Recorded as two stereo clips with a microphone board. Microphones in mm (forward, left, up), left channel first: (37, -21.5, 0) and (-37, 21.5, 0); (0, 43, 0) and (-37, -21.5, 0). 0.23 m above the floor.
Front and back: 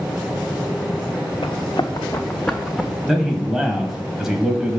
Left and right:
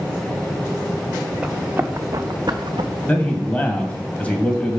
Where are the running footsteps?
40° right, 1.1 m; by 2.9 s 125° right, 1.1 m.